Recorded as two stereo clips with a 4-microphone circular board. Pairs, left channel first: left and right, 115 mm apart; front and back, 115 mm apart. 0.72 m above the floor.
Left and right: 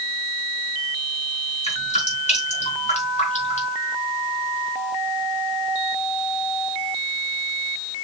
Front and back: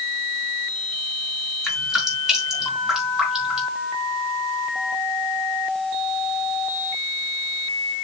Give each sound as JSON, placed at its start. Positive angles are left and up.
{"t": 1.6, "sound": "dripping", "azimuth_deg": 95, "distance_m": 4.5}